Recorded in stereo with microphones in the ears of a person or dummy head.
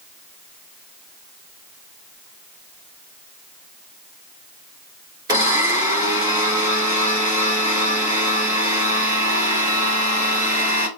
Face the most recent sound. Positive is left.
turn(degrees=-25)  # may be behind; listen again after turning